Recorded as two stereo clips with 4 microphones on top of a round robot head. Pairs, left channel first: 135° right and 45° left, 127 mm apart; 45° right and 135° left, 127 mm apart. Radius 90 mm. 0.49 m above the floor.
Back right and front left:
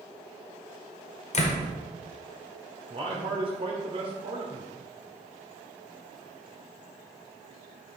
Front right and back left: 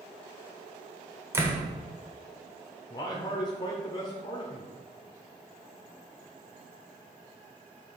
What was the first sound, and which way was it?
A door slam, 155° right.